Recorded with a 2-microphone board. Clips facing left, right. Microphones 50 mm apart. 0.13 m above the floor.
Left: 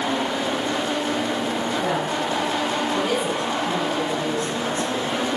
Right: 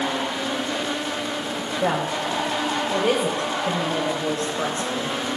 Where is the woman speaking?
40° right (ahead or behind), 6.5 m; by 5.1 s 55° right (ahead or behind), 7.5 m.